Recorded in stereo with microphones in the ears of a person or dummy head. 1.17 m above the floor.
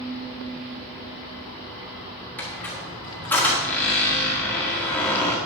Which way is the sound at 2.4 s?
10° left (ahead or behind).